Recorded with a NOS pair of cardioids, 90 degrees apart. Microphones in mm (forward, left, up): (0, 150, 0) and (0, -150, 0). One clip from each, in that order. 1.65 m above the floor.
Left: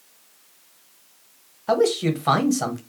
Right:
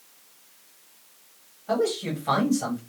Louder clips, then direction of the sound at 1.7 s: Left 6 dB; 65° left.